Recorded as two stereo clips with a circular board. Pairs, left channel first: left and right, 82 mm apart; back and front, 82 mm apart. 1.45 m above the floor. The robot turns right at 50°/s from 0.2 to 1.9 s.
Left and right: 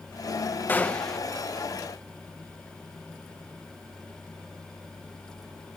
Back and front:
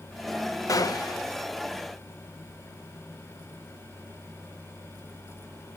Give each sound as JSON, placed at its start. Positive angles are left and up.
{"t": 0.7, "sound": "a gunshot", "azimuth_deg": 150, "distance_m": 0.7}